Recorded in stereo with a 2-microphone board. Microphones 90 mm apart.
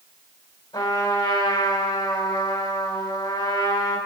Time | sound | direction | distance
0.7 | a trumpet | 70° left (ahead or behind) | 4 m